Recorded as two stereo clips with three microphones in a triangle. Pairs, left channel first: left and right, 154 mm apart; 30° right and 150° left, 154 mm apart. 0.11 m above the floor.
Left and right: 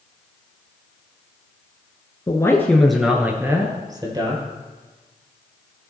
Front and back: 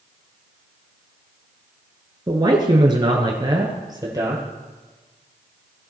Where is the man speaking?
120° left, 1.2 m; by 4.4 s 145° right, 2 m.